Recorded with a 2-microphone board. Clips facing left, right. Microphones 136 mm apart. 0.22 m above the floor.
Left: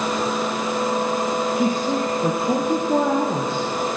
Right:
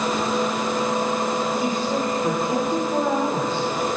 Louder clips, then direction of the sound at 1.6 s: Left 2 dB; 70° left (ahead or behind).